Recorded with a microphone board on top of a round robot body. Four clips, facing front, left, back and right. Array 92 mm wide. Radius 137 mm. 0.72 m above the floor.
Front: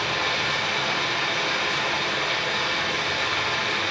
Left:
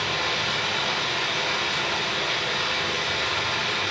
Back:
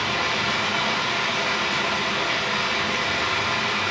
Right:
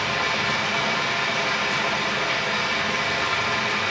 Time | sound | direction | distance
0.0 | running water | 135° right | 3.5 m